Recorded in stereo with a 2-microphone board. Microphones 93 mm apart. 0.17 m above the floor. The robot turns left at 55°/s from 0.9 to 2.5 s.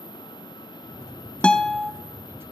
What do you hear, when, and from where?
1.4 s a guitar: 15° left (ahead or behind), 1.0 m; by 1.9 s centre (ahead or behind), 1.0 m